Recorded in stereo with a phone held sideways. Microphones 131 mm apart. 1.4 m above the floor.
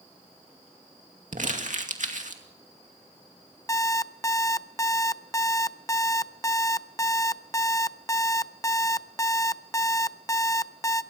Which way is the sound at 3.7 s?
25° left (ahead or behind).